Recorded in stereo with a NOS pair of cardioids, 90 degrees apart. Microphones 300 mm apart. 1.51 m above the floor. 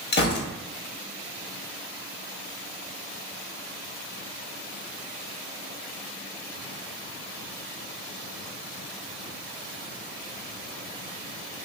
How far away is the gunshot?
About 1.0 m.